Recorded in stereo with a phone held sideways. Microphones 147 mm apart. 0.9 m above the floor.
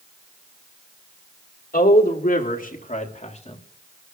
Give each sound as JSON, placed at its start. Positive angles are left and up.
{"t": 1.7, "sound": "a man speaking", "side_deg": 75, "distance_m": 2.5}